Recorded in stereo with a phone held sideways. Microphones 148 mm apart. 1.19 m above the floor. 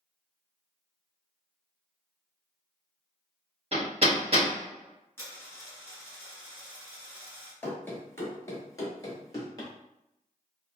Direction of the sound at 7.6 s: 10° left (ahead or behind).